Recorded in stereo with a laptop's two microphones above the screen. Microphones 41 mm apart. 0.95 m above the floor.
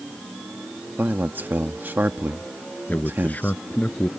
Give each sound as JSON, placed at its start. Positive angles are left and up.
{"t": 1.0, "sound": "a man speaking", "side_deg": -55}
{"t": 2.9, "sound": "a man speaking", "side_deg": 45}